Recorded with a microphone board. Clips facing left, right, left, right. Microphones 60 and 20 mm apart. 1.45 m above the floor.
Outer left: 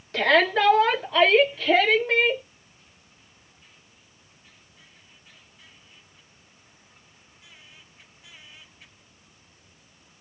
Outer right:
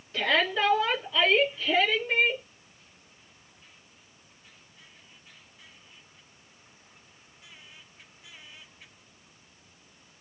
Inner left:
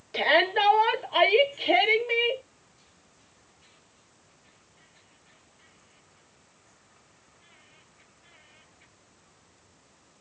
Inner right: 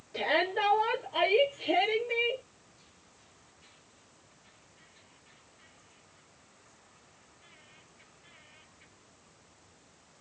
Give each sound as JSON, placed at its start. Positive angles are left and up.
{"t": 0.1, "sound": "a shout", "side_deg": 70, "distance_m": 1.4}